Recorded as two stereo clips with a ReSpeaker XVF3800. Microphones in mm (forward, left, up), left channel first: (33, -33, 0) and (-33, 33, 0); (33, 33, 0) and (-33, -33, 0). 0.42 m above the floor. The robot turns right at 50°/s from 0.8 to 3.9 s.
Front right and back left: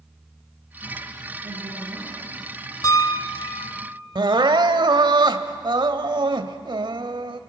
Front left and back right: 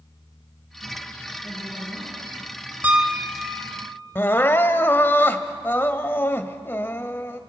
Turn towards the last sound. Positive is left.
turn(degrees=110)